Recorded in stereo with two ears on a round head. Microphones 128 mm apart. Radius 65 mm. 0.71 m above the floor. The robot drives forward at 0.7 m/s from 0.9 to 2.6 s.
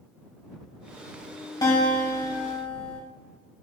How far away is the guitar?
About 1.9 m.